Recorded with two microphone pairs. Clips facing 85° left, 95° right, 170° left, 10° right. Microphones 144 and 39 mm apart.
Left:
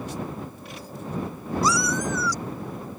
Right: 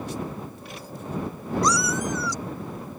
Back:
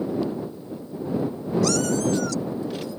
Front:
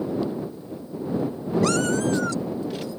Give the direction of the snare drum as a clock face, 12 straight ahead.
No snare drum in this recording.